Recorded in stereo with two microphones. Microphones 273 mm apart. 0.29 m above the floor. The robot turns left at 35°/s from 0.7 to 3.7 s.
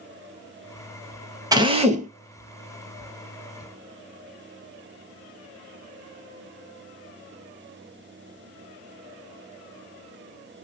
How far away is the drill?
About 0.5 m.